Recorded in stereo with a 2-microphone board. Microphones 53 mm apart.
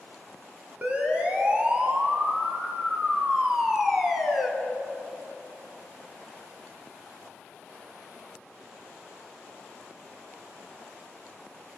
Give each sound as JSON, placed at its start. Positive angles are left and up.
{"t": 0.8, "sound": "a siren", "side_deg": -30, "distance_m": 4.0}